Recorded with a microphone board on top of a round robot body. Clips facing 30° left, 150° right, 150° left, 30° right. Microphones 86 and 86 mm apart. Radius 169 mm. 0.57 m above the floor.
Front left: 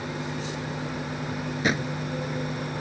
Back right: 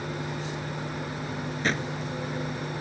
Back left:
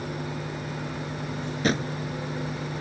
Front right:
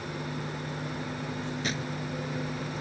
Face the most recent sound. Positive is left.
turn(degrees=110)